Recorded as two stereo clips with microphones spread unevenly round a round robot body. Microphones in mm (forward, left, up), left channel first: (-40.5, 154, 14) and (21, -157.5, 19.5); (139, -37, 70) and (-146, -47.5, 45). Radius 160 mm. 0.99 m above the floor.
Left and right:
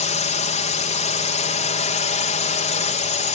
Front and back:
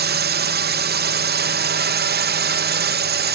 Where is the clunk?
I don't hear a clunk.